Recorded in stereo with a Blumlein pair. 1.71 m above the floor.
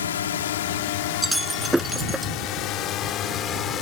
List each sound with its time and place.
0.0 s a drone: 65° left; by 3.8 s 25° left
1.2 s breaking glass: 5° right